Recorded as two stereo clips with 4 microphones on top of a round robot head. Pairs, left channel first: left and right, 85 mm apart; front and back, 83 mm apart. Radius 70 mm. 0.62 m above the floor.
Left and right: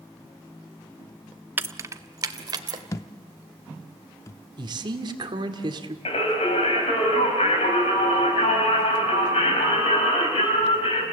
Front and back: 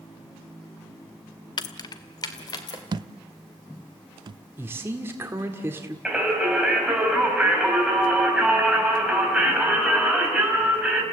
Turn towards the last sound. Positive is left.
turn(degrees=100)